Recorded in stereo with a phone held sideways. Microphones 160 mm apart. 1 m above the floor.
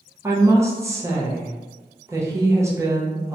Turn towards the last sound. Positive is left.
turn(degrees=-15)  # may be behind; listen again after turning